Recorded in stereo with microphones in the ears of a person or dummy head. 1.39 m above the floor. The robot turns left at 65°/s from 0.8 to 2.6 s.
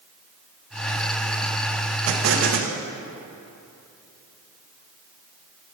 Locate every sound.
2.1 s an explosion: 85° right, 0.9 m; by 2.8 s 120° right, 0.9 m